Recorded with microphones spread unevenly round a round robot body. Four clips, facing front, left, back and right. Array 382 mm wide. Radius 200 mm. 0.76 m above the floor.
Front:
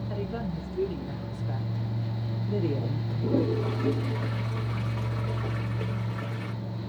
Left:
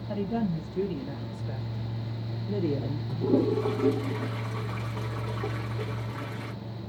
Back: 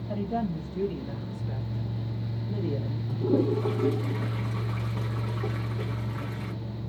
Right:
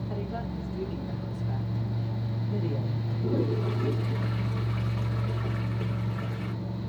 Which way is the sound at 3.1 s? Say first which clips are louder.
Left 5 dB, back 2 dB; 110° left.